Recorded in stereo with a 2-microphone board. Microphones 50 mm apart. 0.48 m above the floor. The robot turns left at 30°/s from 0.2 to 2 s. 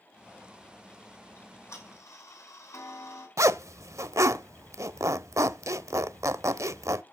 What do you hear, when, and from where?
1.4 s ticking: 50° left (ahead or behind), 5 m; by 3.3 s 70° left (ahead or behind), 5 m
3.4 s a zipper: 80° right, 0.6 m